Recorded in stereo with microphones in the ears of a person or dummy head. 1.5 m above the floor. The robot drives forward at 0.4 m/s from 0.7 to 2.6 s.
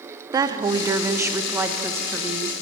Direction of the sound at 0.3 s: 25° right (ahead or behind).